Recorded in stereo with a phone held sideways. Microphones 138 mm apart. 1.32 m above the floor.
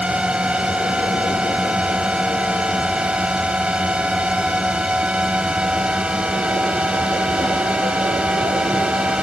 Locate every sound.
0.0 s a drone: 5° right (ahead or behind)